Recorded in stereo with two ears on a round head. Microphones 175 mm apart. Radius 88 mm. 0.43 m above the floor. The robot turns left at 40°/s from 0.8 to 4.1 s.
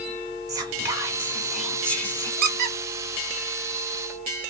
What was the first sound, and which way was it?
Whispering, 145° right.